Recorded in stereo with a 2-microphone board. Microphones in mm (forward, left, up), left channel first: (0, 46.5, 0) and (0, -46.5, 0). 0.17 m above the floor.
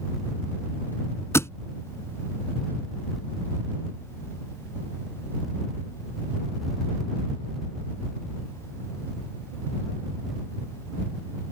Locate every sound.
1.3 s a thud: 30° left (ahead or behind)